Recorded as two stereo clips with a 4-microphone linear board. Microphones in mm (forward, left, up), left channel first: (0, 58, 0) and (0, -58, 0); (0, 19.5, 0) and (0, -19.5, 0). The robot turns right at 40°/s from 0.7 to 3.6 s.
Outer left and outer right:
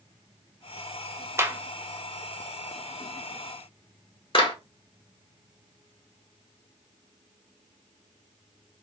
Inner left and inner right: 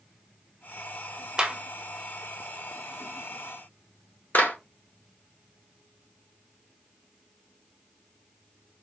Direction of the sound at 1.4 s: 25° right (ahead or behind).